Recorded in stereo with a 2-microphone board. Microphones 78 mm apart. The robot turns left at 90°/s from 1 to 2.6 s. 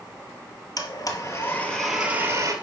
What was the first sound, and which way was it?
A blender, 75° left.